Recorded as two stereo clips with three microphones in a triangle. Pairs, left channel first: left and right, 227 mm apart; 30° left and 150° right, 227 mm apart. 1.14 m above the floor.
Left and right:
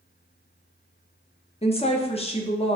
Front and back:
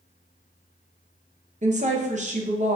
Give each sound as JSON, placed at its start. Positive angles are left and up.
{"t": 1.6, "sound": "a woman speaking", "azimuth_deg": 155, "distance_m": 0.6}